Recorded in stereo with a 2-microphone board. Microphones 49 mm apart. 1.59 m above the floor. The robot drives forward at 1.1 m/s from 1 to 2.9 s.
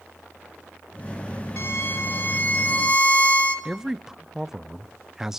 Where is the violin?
55° left (ahead or behind), 2.0 m; by 3.5 s 30° left (ahead or behind), 3 m.